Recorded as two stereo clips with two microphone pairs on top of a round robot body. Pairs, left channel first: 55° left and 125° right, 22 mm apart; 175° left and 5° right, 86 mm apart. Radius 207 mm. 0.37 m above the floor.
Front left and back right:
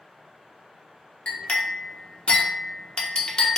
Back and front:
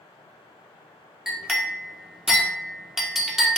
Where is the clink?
75° left, 1.2 m.